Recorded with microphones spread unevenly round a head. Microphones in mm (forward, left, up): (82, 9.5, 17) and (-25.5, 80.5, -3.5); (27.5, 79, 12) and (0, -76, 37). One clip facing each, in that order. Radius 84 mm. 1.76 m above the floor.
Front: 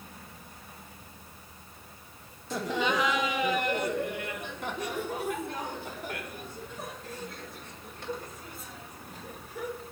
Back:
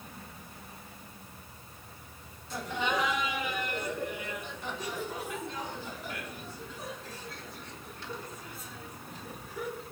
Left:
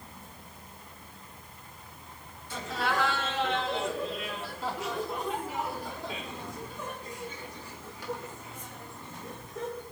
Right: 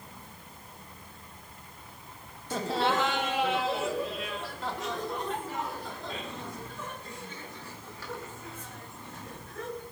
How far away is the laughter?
About 1.1 m.